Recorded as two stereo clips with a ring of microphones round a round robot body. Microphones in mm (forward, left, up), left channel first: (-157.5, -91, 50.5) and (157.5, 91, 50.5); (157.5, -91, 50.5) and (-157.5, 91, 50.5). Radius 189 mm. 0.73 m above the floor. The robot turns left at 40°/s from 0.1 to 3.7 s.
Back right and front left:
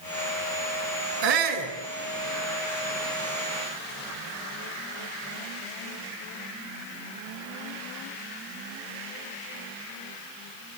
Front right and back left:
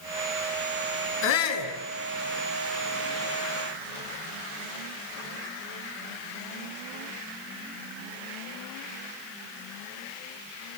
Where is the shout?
30° left, 8 m; by 1.7 s 10° left, 8 m.